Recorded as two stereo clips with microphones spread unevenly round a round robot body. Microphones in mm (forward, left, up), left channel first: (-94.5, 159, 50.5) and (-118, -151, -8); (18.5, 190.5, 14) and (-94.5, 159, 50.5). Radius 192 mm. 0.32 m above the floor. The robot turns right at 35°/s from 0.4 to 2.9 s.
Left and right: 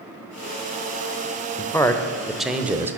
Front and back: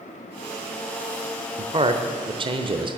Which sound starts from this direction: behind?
A man speaking, at 1.6 s.